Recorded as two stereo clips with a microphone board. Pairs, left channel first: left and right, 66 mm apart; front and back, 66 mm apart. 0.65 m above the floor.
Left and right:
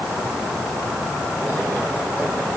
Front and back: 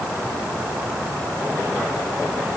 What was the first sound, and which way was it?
Only background noise.